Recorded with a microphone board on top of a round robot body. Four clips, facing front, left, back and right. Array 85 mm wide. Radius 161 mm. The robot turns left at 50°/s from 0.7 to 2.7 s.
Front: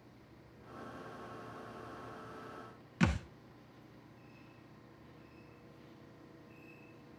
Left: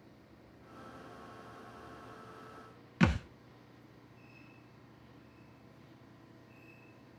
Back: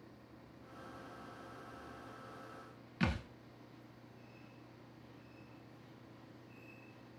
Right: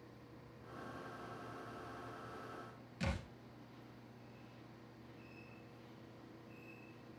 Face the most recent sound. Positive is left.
turn(degrees=75)